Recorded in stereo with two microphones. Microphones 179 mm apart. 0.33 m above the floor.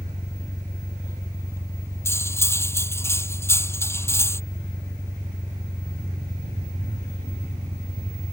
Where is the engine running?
15° right (ahead or behind).